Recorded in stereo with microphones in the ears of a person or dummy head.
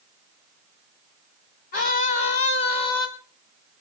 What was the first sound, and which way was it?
A scream, 45° left (ahead or behind).